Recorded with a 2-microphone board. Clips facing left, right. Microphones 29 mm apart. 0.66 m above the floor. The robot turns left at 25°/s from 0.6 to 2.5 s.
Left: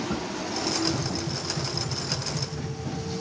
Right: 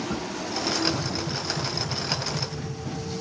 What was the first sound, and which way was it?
Tapping, 30° right (ahead or behind).